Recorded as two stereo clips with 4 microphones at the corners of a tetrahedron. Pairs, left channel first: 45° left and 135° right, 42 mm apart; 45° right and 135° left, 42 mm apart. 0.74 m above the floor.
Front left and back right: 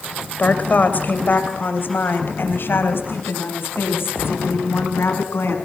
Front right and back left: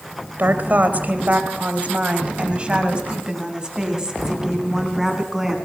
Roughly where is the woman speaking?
Left.